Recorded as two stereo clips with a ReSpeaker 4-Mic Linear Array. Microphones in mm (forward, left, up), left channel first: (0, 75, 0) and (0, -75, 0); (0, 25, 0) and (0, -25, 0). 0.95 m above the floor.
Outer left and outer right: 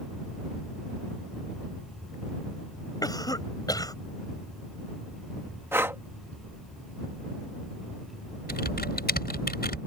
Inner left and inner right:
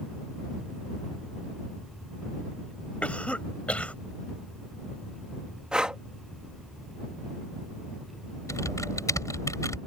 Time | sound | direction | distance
3.0 | a cough | 25° left (ahead or behind) | ?
5.7 | breathing | 15° right (ahead or behind) | ?
8.5 | typing on a keyboard | 85° left | ?